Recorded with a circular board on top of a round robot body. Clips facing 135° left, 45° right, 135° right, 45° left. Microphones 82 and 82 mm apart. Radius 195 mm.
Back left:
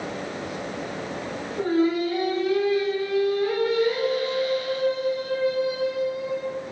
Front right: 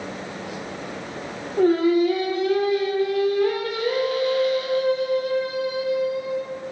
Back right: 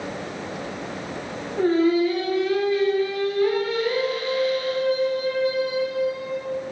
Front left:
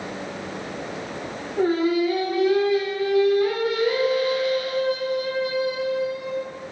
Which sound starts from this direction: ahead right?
Singing, at 1.6 s.